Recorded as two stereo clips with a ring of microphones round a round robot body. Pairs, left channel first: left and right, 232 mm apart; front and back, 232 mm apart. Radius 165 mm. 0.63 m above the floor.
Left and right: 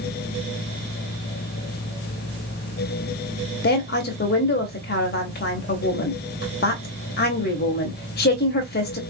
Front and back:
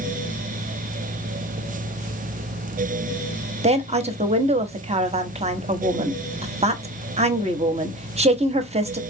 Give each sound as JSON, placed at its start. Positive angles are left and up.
{"t": 3.6, "sound": "a woman speaking", "azimuth_deg": 125, "distance_m": 0.9}